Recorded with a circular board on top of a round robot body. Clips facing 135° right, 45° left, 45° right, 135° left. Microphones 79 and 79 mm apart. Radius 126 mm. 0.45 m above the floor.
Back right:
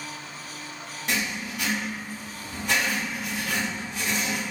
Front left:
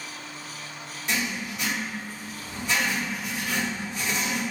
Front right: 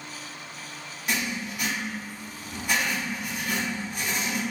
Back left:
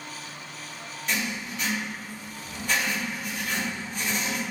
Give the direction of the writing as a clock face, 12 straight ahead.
4 o'clock.